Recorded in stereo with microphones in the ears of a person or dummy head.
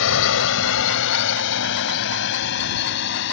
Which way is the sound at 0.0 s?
65° left (ahead or behind).